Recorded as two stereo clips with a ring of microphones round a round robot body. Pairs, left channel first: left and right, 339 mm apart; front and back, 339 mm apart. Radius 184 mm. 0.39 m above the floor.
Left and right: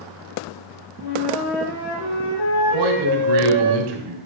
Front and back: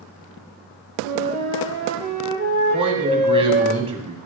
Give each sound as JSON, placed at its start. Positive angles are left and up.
{"t": 1.0, "sound": "a flute", "azimuth_deg": 105, "distance_m": 6.0}
{"t": 2.7, "sound": "a man speaking", "azimuth_deg": -105, "distance_m": 3.0}